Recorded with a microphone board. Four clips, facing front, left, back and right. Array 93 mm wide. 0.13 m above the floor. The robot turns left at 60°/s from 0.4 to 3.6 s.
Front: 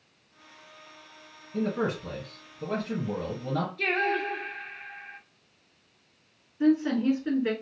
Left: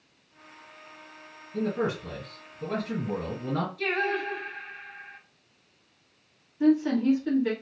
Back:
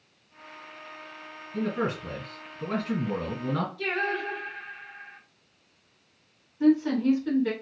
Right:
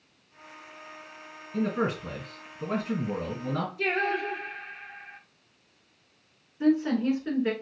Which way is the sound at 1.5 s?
70° right.